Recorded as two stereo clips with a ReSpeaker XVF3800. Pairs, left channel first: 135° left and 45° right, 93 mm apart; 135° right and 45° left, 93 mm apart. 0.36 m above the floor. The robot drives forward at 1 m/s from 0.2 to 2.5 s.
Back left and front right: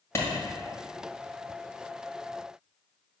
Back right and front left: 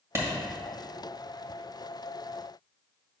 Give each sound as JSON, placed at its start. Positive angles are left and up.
{"t": 0.1, "sound": "a clap", "azimuth_deg": 90, "distance_m": 1.5}